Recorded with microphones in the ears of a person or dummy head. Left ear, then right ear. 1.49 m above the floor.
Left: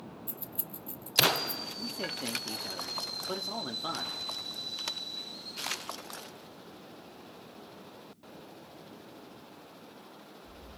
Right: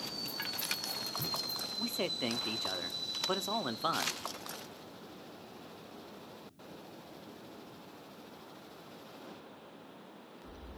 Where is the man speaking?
45° right (ahead or behind), 0.7 m.